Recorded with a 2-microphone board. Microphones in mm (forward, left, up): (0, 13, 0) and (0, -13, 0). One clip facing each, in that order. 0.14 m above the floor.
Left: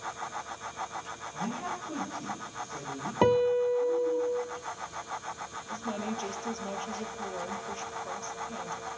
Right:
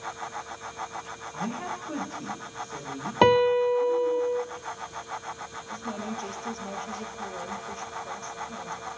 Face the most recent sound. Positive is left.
turn(degrees=15)  # may be behind; listen again after turning